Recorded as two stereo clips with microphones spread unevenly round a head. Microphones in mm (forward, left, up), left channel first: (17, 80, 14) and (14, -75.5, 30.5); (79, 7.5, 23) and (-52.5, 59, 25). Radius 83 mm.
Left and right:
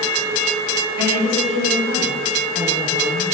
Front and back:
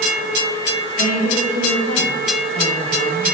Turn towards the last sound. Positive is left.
turn(degrees=-75)